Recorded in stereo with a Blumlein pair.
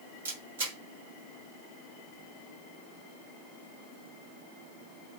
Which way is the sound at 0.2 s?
65° right.